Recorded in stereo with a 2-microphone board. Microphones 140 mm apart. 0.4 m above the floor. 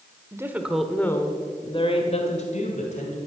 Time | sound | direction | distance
0.3 | a woman speaking | 20° right (ahead or behind) | 1.5 m